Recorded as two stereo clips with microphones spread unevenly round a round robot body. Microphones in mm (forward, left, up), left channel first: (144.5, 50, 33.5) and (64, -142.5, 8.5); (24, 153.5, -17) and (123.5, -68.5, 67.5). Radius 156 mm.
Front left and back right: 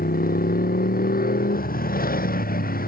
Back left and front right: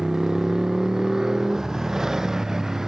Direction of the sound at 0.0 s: 20° left.